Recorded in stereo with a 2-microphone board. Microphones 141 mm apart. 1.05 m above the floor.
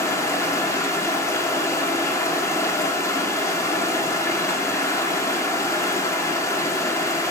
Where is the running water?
20° left (ahead or behind), 2.5 m.